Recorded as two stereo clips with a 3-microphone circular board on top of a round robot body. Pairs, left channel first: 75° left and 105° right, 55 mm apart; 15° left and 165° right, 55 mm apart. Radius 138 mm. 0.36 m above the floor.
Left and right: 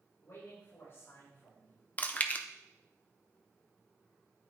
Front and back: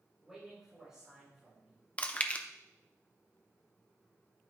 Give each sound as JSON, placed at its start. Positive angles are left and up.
{"t": 0.2, "sound": "a man speaking", "azimuth_deg": 115, "distance_m": 5.0}
{"t": 2.0, "sound": "chewing", "azimuth_deg": 55, "distance_m": 1.1}